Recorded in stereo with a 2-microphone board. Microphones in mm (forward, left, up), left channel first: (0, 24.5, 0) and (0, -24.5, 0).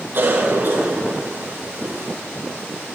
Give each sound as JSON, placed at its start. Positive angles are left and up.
{"t": 0.1, "sound": "a cough", "side_deg": -55, "distance_m": 4.0}